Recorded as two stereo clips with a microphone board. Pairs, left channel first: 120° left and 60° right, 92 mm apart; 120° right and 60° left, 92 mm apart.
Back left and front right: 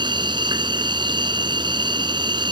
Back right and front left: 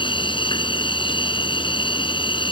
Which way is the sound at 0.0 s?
95° right.